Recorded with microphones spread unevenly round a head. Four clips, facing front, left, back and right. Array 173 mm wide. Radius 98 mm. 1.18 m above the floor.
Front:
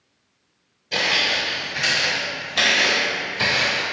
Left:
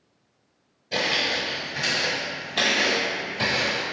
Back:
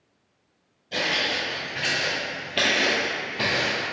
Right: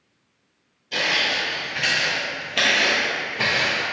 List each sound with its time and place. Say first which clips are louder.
0.9 s footsteps: right 1 dB, front 3 dB; 65° left, 1.2 m; by 3.8 s 160° right, 1.9 m